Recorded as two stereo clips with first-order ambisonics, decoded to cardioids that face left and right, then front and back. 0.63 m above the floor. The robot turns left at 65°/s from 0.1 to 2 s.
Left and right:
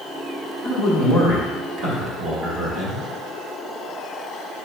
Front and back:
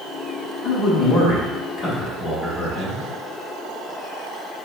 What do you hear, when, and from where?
0.6 s a man speaking: 30° left, 1.3 m; by 3.1 s 60° right, 1.3 m